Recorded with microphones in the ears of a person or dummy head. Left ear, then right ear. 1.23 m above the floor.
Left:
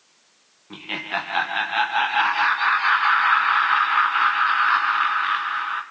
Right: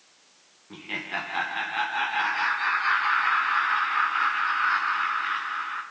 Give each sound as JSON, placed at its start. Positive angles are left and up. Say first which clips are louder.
{"t": 0.7, "sound": "laughter", "louder": "left 4 dB", "side_deg": 35, "distance_m": 0.9}